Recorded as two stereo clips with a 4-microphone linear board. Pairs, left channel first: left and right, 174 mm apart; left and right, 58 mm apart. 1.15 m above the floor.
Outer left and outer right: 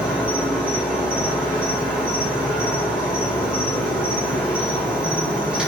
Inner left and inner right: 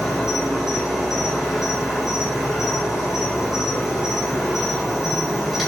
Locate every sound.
0.0 s an insect: 5° right (ahead or behind), 1.0 m